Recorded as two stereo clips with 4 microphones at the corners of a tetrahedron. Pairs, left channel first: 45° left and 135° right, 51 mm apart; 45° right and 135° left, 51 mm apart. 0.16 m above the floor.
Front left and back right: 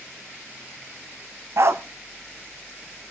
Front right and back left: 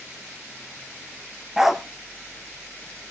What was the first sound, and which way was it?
A dog barking, 145° right.